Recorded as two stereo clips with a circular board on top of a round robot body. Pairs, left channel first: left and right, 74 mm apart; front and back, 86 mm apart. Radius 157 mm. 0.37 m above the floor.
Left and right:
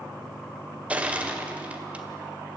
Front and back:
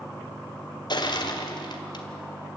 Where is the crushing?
20° right, 2 m.